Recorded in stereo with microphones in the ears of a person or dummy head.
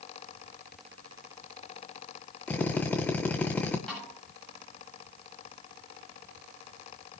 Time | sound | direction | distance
2.5 | a drill | 10° left (ahead or behind) | 1.7 m
3.9 | a snare drum | 5° left (ahead or behind) | 9 m